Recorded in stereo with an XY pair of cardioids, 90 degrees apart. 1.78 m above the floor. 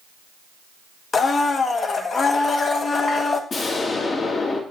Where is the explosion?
55° left, 1.6 m.